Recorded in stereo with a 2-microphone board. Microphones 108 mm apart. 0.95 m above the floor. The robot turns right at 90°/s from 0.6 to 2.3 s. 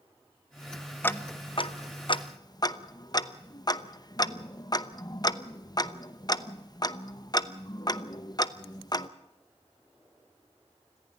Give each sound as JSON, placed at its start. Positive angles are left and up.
{"t": 1.0, "sound": "ticking", "side_deg": 15, "distance_m": 0.9}